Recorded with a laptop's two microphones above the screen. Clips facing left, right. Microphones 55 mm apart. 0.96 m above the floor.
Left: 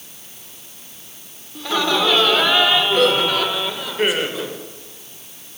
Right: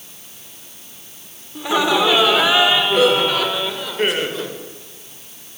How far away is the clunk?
No clunk in this recording.